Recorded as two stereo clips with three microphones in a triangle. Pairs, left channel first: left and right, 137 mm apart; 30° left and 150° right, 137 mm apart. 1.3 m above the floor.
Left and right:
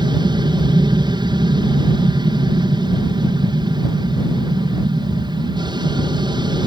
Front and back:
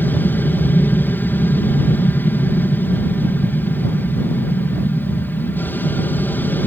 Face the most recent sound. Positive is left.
turn(degrees=-45)